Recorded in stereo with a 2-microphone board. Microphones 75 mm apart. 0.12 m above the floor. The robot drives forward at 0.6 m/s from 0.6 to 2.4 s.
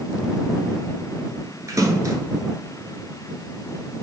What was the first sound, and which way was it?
A splash, 45° right (ahead or behind).